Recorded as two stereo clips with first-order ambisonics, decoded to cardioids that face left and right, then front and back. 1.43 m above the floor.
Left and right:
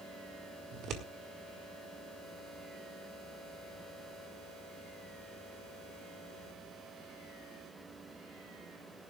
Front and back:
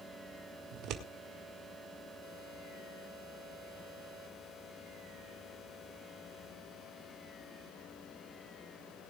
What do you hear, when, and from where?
0.7 s scissors: 140° right, 1.9 m